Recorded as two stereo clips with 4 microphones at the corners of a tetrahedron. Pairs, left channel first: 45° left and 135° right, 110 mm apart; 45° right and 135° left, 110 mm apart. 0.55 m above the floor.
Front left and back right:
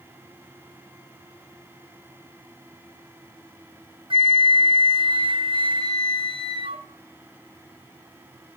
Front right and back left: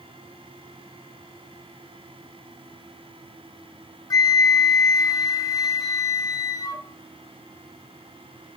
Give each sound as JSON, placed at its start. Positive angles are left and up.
{"t": 4.1, "sound": "a flute", "azimuth_deg": -100, "distance_m": 0.5}